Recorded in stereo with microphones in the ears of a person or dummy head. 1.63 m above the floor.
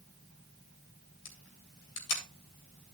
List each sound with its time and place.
1.2 s a camera shutter: 65° left (ahead or behind), 3.5 m